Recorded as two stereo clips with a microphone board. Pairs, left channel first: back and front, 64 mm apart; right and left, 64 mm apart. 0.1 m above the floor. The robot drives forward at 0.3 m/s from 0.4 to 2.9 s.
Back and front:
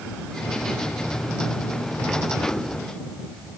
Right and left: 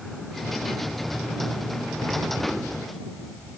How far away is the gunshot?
No gunshot in this recording.